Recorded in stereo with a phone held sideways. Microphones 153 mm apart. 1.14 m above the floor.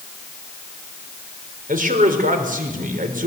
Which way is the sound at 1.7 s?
65° right (ahead or behind).